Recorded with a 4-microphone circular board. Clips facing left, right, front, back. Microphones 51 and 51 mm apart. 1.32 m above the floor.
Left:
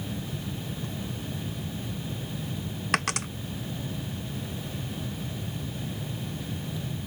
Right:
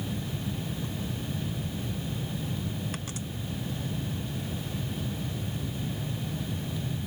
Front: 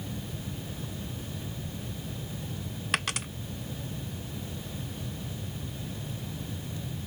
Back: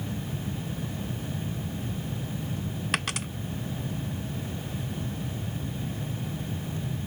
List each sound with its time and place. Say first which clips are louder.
2.9 s a dropped coin: left 10 dB, even; 90° left